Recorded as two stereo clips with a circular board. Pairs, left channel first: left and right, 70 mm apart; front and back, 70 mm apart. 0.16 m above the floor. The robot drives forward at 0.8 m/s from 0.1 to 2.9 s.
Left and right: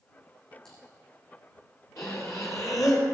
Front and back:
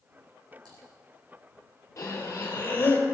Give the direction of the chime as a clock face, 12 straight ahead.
No chime in this recording.